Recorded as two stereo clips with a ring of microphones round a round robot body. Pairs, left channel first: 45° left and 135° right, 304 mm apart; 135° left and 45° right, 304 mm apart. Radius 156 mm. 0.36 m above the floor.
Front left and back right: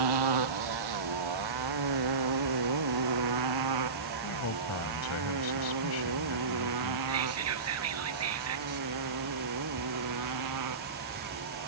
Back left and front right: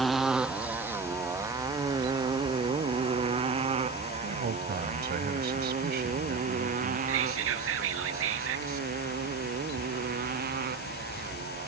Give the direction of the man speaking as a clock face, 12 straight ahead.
12 o'clock.